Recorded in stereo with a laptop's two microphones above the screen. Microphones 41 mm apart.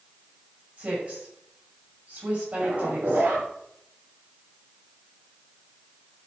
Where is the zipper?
50° right (ahead or behind), 5 m.